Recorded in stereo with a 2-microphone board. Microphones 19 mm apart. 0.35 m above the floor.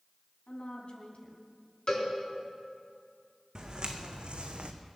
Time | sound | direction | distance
0.5 | a woman speaking | 70° left (ahead or behind) | 3 m
1.9 | a cowbell | 40° left (ahead or behind) | 4 m
3.5 | footsteps | 45° right (ahead or behind) | 1.6 m